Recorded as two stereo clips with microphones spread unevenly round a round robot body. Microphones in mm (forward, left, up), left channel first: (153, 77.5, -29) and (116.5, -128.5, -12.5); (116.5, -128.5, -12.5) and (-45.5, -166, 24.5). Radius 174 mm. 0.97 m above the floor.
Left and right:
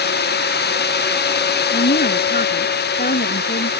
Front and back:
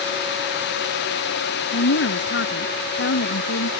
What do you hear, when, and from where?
1.7 s a woman speaking: 35° left